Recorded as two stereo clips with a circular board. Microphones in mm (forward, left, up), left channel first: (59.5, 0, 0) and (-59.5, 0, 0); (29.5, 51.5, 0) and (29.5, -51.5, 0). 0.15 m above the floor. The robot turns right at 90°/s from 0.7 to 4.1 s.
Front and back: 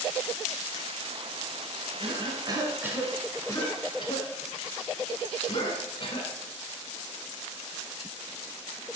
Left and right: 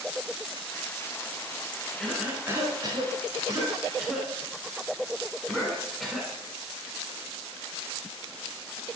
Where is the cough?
170° left, 1.4 m; by 6.3 s straight ahead, 1.4 m.